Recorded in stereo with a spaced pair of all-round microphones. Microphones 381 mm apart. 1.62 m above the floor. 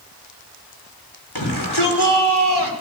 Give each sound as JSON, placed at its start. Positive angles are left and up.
{"t": 1.4, "sound": "a shout", "side_deg": 90, "distance_m": 5.5}